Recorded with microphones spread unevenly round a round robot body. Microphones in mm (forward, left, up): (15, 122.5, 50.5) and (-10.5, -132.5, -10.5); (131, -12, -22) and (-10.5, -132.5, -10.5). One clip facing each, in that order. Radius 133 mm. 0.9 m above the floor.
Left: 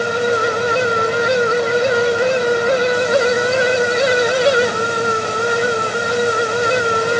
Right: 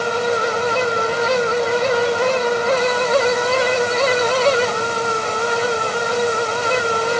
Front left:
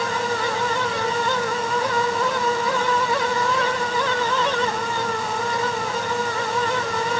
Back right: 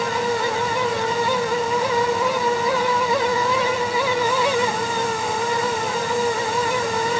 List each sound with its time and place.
Only background noise.